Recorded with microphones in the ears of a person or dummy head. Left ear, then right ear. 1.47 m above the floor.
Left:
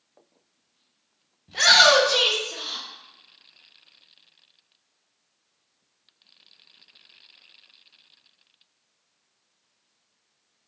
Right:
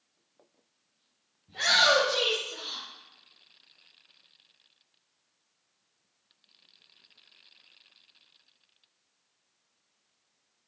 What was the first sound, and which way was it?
A shout, 55° left (ahead or behind).